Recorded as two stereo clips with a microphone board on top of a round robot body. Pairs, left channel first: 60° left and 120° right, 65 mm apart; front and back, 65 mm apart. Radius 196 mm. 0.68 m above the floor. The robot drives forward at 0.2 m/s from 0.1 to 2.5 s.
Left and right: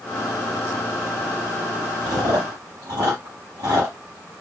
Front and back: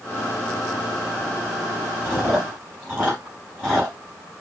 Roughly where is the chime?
I don't hear a chime.